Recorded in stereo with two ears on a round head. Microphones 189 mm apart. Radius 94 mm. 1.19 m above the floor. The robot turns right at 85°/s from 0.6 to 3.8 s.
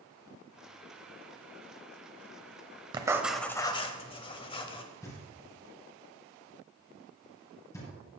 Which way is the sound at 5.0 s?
15° left (ahead or behind).